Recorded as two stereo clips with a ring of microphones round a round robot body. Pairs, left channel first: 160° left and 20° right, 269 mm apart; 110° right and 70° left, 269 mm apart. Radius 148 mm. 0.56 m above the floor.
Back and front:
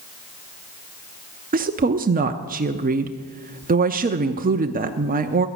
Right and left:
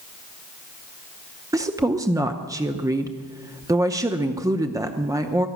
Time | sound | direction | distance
1.5 | a woman speaking | straight ahead | 0.8 m